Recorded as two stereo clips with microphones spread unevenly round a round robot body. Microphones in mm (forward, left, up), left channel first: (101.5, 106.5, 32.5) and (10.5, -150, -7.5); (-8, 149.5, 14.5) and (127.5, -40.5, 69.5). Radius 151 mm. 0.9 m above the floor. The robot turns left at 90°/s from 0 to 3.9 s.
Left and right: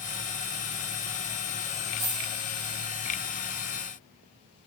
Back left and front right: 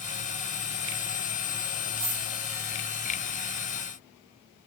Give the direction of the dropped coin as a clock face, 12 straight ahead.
1 o'clock.